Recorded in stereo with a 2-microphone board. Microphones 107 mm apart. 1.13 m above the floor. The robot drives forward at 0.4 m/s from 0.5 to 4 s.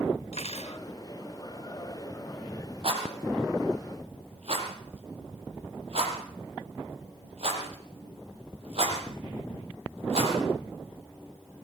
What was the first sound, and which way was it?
Cutlery clinking, 85° left.